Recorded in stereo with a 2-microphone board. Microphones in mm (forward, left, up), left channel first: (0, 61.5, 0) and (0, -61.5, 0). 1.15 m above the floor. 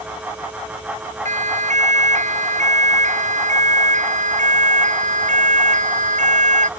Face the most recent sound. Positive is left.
turn(degrees=-85)